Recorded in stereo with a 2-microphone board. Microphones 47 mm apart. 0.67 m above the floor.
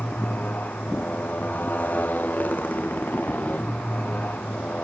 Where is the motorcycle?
40° left (ahead or behind).